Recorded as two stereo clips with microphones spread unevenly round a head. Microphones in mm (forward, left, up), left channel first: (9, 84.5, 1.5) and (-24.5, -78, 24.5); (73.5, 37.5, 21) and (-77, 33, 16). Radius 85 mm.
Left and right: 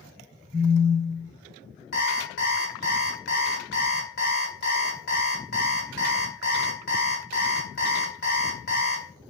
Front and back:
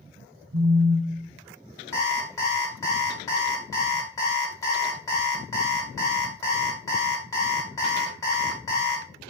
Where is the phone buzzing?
Straight behind, 0.7 m.